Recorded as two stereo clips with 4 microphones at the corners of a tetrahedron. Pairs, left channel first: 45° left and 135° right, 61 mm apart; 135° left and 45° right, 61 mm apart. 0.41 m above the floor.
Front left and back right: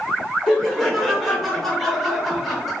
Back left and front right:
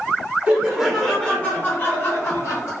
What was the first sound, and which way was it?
Laughter, 35° right.